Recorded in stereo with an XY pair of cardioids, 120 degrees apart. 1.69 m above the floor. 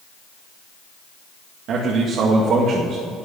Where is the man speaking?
65° right, 2.0 m.